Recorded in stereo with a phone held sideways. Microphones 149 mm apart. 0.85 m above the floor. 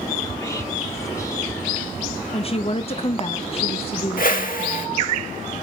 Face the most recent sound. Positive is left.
turn(degrees=70)  # may be behind; listen again after turning